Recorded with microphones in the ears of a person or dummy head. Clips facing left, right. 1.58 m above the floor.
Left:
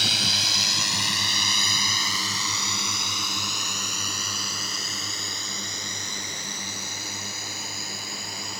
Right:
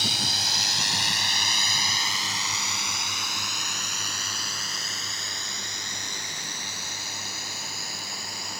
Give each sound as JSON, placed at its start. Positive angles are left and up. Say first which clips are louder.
{"t": 0.0, "sound": "a drone", "louder": "left 1 dB", "side_deg": 60}